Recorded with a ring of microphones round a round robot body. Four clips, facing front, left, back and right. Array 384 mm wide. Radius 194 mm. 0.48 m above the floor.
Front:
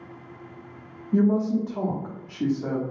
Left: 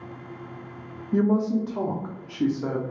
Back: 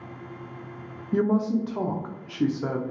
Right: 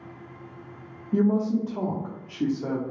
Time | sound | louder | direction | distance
1.1 | a woman speaking | left 1 dB, front 2 dB | 160° left | 0.7 m